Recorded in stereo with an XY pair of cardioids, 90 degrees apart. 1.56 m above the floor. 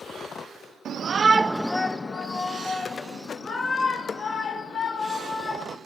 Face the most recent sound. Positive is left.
turn(degrees=70)